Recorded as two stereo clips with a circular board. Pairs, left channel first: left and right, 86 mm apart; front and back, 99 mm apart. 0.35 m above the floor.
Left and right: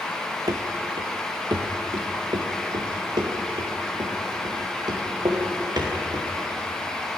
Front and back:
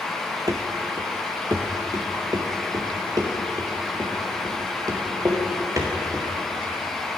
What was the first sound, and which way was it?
Running footsteps, 130° right.